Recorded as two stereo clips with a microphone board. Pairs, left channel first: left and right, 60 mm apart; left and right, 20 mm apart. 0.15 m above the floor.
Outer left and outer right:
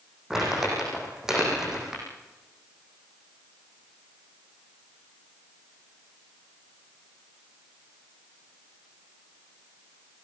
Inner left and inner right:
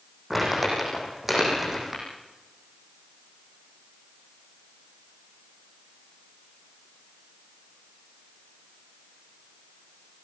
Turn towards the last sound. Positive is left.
turn(degrees=-10)  # may be behind; listen again after turning